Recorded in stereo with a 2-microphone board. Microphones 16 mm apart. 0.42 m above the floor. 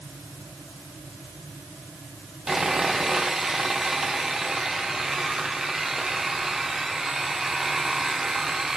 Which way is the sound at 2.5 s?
40° right (ahead or behind).